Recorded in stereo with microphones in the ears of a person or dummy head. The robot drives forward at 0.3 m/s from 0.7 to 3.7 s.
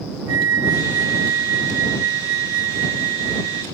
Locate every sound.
0.3 s a flute: 80° right; by 3.6 s 65° right (ahead or behind)